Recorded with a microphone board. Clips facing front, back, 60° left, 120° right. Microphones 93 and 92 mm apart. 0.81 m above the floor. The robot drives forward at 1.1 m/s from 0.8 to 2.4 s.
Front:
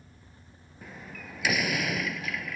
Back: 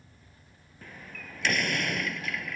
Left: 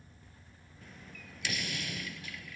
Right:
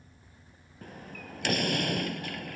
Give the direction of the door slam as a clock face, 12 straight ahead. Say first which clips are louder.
Front 2 dB, right 8 dB; 3 o'clock.